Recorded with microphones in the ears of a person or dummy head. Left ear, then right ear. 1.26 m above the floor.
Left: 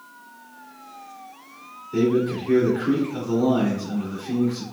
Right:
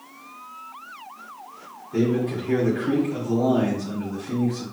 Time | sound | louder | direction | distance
1.9 | a man speaking | left 2 dB | 25° left (ahead or behind) | 2.5 m